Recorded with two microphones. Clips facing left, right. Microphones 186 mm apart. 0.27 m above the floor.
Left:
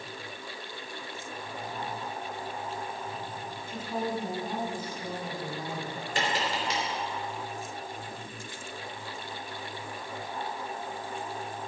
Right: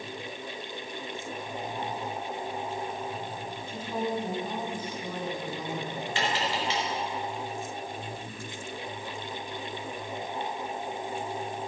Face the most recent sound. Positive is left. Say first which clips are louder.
# even
turn(degrees=45)  # may be behind; listen again after turning